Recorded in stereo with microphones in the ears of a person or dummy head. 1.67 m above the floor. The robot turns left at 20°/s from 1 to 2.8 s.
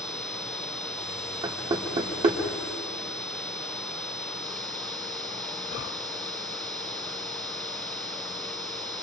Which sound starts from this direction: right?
Knocking, at 1.4 s.